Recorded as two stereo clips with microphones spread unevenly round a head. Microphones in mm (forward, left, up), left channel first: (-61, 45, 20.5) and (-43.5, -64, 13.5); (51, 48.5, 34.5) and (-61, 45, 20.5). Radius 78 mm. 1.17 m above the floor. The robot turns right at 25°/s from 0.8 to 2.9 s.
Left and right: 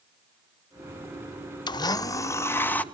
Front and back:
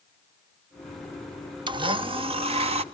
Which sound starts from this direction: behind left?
A blender, at 1.7 s.